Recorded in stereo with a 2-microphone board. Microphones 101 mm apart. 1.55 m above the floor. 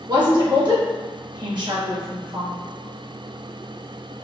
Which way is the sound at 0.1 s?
45° right (ahead or behind).